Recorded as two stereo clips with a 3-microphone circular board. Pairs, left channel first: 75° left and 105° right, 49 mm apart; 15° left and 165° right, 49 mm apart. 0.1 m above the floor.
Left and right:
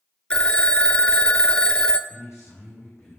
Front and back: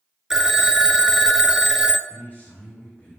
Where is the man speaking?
70° left, 4 m.